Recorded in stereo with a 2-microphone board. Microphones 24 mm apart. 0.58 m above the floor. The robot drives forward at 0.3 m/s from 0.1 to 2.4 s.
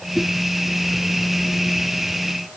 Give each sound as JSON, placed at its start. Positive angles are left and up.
{"t": 0.1, "sound": "a whoosh", "side_deg": -35, "distance_m": 5.5}